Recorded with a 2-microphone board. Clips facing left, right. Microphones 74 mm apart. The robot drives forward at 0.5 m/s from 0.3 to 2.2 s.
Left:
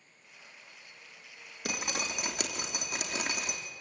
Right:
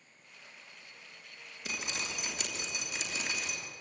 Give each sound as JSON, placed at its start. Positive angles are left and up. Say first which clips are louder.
{"t": 1.6, "sound": "dripping", "louder": "left 4 dB", "side_deg": 60, "distance_m": 3.0}